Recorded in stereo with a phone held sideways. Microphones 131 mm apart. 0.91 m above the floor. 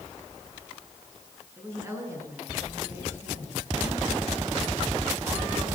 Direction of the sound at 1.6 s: 20° right (ahead or behind).